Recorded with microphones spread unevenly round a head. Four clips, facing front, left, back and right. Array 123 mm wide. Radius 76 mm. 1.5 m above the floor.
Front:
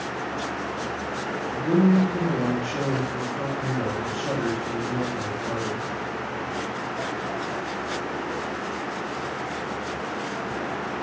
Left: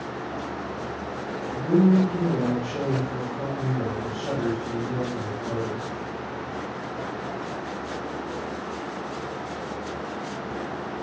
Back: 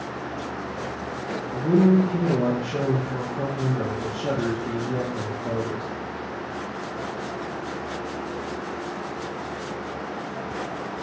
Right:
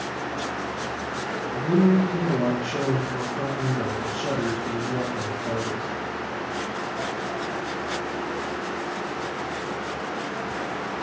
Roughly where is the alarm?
I don't hear an alarm.